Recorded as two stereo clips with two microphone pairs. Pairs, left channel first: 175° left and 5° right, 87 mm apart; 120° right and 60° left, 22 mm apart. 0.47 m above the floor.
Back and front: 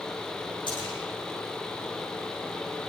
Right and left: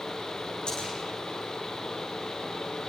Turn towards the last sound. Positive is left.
turn(degrees=-165)